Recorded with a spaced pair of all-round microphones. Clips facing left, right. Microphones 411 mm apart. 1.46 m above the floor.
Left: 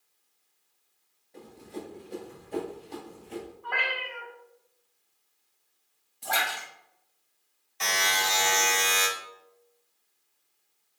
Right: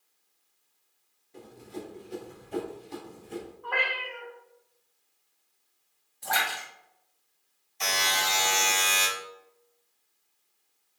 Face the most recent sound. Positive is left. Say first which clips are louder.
# left 1 dB
turn(degrees=75)  # may be behind; listen again after turning